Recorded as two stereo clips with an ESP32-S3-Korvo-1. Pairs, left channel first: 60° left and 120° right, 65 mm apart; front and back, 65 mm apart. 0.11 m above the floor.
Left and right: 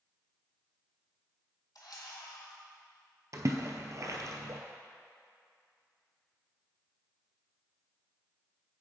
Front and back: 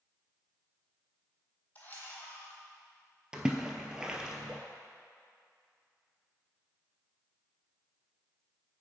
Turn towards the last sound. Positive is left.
turn(degrees=-105)